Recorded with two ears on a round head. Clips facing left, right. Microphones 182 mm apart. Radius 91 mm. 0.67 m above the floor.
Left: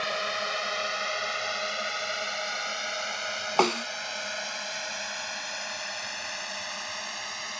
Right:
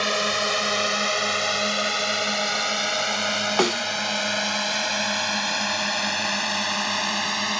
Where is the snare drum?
15° right (ahead or behind).